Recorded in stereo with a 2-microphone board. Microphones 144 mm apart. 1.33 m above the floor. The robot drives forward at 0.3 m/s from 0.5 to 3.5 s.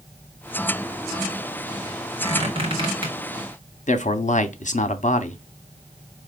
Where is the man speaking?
60° left (ahead or behind), 0.6 m.